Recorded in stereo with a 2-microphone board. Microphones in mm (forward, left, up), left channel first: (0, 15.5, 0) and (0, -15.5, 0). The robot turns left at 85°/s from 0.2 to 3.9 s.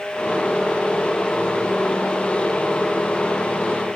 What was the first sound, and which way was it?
Only background noise.